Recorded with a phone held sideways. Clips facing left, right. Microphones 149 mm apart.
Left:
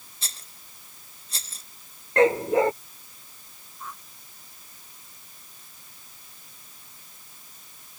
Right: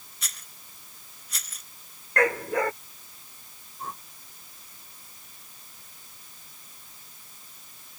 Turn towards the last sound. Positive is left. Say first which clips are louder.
# right 3 dB
turn(degrees=-40)  # may be behind; listen again after turning